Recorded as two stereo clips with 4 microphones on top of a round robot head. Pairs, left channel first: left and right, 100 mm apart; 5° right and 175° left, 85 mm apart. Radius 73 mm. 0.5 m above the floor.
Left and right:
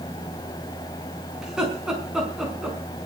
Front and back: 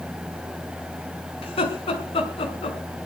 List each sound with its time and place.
1.4 s laughter: 5° right, 5.5 m